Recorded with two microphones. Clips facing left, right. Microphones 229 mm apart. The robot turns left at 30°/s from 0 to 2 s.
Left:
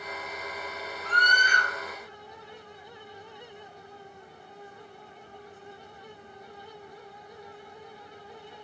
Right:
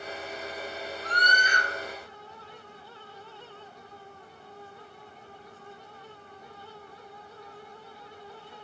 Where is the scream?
90° right, 1.6 m; by 1.7 s 70° right (ahead or behind), 1.6 m.